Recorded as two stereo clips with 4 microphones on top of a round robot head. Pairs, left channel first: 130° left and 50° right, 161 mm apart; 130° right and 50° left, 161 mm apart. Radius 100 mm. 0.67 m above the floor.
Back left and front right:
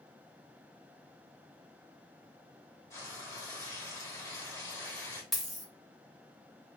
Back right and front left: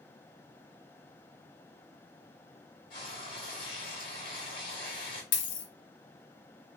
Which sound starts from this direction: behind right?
A dropped coin, at 5.3 s.